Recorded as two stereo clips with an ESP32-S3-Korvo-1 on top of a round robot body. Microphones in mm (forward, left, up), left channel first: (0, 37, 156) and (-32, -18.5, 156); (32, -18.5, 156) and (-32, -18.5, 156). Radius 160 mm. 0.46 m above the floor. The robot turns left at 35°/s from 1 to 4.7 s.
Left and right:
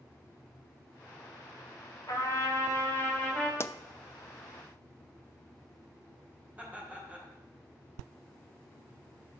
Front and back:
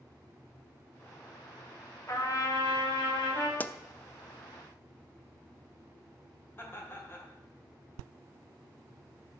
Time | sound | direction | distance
2.1 | a trumpet | 35° left | 2.5 m
3.6 | a pop | 45° left | 0.7 m
6.6 | laughter | 55° right | 3 m